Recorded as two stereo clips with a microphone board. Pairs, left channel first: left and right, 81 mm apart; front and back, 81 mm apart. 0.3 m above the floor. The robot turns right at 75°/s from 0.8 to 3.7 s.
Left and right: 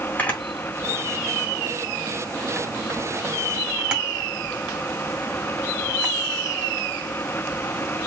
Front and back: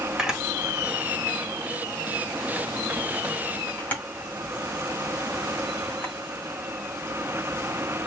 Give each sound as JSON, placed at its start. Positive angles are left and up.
{"t": 0.2, "sound": "a camera shutter", "azimuth_deg": 115, "distance_m": 1.3}